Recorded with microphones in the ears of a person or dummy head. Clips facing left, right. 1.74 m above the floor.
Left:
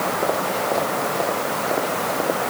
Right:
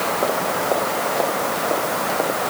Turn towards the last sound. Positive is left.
No sound to turn to.